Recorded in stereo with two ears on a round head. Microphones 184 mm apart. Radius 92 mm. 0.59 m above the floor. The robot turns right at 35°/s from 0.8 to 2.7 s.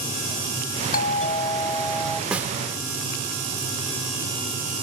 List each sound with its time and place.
0.9 s a doorbell: 135° left; by 2.2 s straight behind
2.3 s a snare drum: 5° right (ahead or behind); by 2.5 s 15° right (ahead or behind)